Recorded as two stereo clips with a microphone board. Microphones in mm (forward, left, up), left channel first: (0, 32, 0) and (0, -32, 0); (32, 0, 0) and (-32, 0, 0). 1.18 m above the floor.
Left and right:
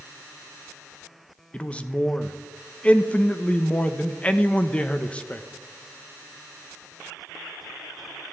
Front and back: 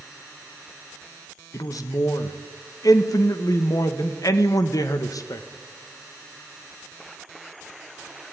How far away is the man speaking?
About 1.1 m.